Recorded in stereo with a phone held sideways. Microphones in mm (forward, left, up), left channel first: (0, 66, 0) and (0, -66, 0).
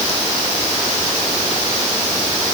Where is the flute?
I don't hear a flute.